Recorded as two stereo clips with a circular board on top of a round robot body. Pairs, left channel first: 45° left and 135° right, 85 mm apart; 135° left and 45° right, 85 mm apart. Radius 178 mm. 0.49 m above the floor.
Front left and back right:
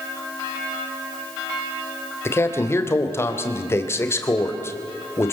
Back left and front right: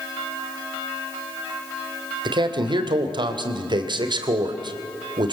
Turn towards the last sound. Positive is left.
turn(degrees=-15)